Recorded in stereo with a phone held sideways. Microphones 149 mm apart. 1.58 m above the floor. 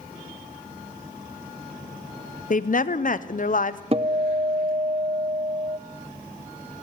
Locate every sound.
2.5 s a woman speaking: 60° left (ahead or behind), 0.6 m
3.9 s a guitar: 40° right (ahead or behind), 0.5 m